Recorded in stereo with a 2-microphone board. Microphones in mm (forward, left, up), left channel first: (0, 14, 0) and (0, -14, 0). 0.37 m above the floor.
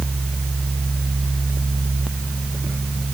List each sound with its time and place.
Only background noise.